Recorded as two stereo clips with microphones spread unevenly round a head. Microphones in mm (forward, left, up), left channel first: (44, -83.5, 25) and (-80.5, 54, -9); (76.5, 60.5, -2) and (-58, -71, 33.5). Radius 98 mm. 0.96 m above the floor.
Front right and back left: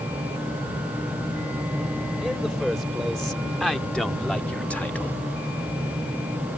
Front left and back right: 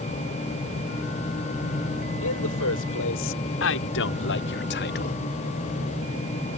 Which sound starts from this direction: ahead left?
A man speaking, at 2.2 s.